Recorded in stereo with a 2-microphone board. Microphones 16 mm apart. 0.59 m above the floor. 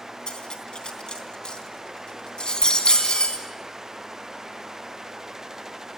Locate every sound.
0.3 s cutlery clinking: 65° left (ahead or behind), 3.5 m